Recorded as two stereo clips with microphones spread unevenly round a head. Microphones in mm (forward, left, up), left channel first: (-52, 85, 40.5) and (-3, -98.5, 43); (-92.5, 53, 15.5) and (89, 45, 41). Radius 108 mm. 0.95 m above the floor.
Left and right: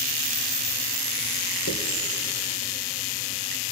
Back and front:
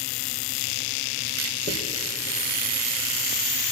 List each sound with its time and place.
1.7 s a dropped coin: 140° left, 2 m